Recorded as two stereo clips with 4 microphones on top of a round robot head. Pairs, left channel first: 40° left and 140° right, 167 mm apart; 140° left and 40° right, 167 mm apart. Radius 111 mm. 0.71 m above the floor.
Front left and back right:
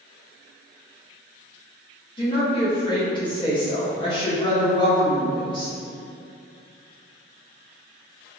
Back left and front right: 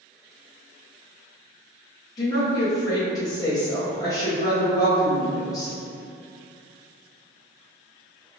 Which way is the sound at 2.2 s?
80° left.